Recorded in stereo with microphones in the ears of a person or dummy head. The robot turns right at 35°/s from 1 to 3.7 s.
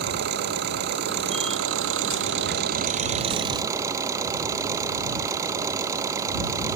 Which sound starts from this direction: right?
An engine running, at 0.0 s.